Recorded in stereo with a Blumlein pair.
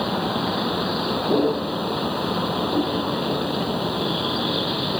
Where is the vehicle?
Straight ahead.